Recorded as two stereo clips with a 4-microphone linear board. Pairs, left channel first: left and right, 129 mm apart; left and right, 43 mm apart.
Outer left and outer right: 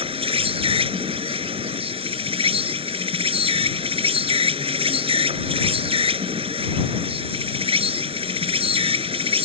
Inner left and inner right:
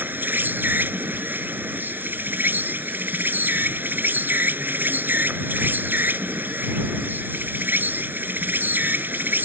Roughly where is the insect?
Right.